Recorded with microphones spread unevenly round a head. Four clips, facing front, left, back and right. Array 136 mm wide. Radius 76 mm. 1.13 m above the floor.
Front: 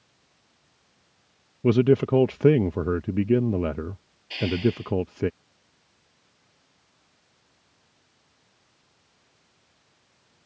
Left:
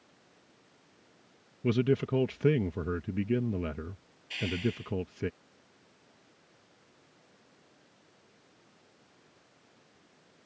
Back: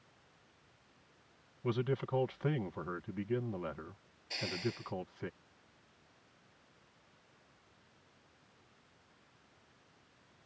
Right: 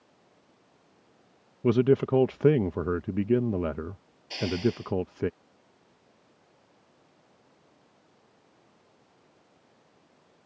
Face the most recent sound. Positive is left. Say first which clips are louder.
# right 5 dB, front 15 dB
turn(degrees=-80)